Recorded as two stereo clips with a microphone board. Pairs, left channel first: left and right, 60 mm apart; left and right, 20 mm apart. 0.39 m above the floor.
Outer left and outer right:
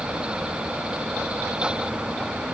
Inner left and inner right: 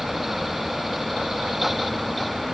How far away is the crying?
I don't hear crying.